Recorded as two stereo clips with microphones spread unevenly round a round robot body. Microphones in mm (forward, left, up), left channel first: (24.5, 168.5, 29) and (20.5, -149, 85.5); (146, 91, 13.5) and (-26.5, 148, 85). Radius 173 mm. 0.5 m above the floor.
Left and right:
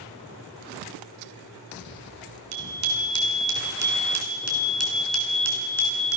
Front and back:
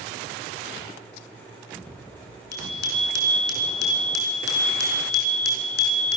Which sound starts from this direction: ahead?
A bicycle bell, at 2.5 s.